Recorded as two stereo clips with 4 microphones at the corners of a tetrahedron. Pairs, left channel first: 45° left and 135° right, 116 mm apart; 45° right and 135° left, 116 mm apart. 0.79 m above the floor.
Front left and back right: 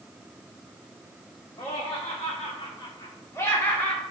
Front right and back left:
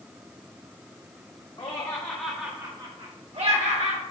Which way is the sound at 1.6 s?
5° left.